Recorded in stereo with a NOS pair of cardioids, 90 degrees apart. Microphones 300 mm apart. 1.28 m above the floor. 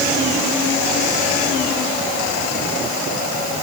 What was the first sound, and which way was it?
Only background noise.